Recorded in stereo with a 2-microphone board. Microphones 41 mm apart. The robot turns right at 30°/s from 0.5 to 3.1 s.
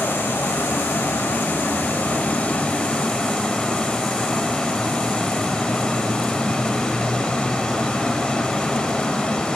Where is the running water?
80° left, 2.5 m; by 9.6 s 160° left, 2.5 m.